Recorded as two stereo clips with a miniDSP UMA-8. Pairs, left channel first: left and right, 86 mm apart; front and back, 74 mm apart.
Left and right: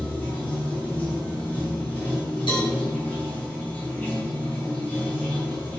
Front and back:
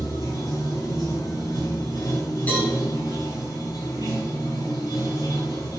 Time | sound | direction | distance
0.0 | running water | 20° left | 7 m
2.5 | a cowbell | 65° left | 6.5 m